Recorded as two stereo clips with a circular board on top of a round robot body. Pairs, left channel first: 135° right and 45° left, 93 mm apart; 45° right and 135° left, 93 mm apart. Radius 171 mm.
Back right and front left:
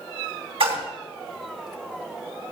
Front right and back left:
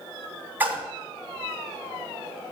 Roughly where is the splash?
Ahead left.